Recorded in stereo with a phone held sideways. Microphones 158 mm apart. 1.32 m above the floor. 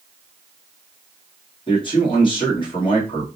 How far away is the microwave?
No microwave in this recording.